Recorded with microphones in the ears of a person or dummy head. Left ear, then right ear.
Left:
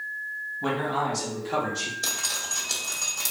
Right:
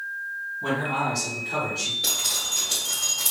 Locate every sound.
0.6 s a man speaking: 70° left (ahead or behind), 2 m
2.0 s dripping: 80° left, 2.5 m